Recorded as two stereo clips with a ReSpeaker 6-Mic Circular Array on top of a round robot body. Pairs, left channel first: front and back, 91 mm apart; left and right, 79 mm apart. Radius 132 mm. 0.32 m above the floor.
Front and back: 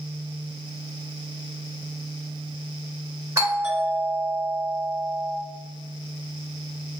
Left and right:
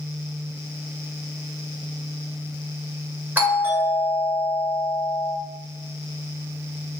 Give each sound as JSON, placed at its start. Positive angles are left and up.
{"t": 3.4, "sound": "a doorbell", "azimuth_deg": -145, "distance_m": 1.5}